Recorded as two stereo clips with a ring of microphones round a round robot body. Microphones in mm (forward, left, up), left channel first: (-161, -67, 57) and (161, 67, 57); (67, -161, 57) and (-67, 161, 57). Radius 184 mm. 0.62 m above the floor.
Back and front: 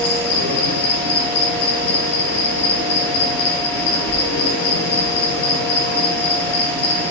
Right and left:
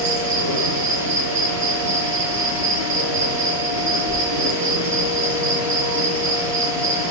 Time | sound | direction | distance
0.0 | an insect | 140° left | 6 m